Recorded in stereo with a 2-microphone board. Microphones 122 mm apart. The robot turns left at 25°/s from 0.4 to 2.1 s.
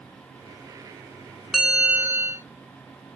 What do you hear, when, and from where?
1.5 s a bell: 5° right (ahead or behind), 0.6 m; by 2.5 s 15° right (ahead or behind), 0.6 m